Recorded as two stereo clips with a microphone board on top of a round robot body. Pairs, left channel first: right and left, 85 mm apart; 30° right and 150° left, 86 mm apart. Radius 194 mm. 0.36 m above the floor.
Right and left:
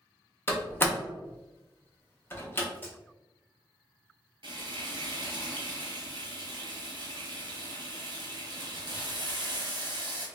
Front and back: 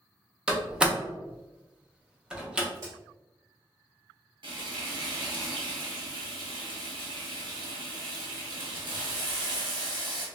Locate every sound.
0.5 s a door slam: 140° right, 0.9 m
2.7 s a crack: 160° right, 1.1 m
4.4 s frying: 120° left, 1.0 m